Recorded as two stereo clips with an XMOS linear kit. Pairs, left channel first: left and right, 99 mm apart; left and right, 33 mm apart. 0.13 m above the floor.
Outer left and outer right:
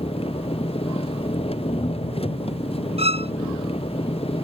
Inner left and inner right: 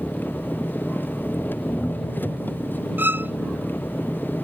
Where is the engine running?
80° left.